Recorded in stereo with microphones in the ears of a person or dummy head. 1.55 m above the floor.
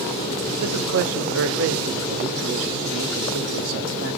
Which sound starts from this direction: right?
A man speaking, at 0.6 s.